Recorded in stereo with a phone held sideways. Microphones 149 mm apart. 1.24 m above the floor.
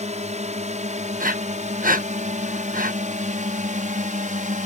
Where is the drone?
55° right (ahead or behind); by 4.7 s 60° right (ahead or behind).